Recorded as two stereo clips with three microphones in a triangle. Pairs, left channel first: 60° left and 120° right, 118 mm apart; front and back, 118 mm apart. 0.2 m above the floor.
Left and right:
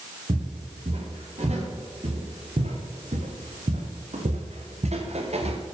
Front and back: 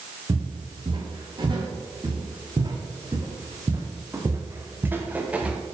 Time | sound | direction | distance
0.3 | footsteps | 135° right | 4.5 m